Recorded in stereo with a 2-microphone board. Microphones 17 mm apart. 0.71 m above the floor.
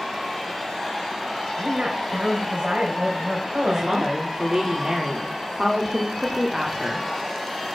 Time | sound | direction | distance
1.6 | a woman speaking | 70° right (ahead or behind) | 3.5 m
3.7 | a woman speaking | 35° right (ahead or behind) | 2 m